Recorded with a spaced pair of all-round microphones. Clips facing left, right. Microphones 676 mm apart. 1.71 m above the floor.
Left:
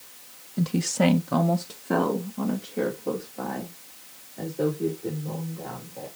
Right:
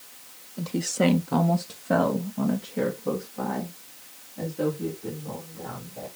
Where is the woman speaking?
45° left (ahead or behind), 0.9 m; by 6.1 s 40° right (ahead or behind), 5 m.